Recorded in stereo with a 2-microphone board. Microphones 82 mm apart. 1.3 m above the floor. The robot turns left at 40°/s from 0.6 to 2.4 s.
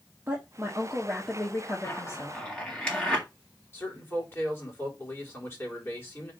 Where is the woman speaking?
155° right, 1.4 m; by 2.4 s 130° left, 1.4 m.